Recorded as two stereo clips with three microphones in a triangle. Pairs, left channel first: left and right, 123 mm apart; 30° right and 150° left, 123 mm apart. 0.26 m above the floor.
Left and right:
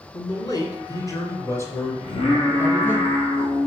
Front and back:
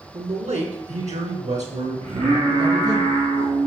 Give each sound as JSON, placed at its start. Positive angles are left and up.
{"t": 0.1, "sound": "a man speaking", "azimuth_deg": 140, "distance_m": 2.5}
{"t": 2.0, "sound": "singing", "azimuth_deg": 125, "distance_m": 4.0}